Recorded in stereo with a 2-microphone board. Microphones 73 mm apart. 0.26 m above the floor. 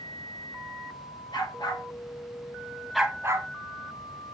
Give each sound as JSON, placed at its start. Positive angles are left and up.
{"t": 1.3, "sound": "a dog barking", "side_deg": 80, "distance_m": 2.0}